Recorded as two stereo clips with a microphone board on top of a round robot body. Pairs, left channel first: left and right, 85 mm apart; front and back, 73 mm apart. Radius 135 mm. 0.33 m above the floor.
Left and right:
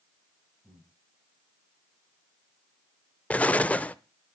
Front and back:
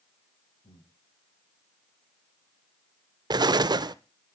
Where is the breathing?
5° right, 5 m.